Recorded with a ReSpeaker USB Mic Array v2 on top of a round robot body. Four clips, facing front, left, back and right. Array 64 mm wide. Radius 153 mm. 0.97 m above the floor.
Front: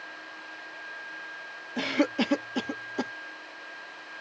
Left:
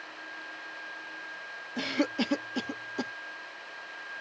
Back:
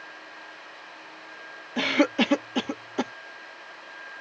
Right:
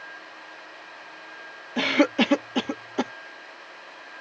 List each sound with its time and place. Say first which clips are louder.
1.8 s a cough: right 9 dB, back 4 dB; 125° right